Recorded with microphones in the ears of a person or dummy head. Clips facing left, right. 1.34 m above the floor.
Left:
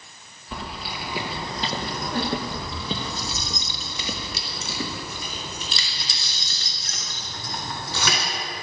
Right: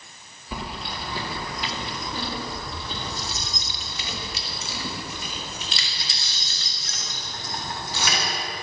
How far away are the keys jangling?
About 1.2 m.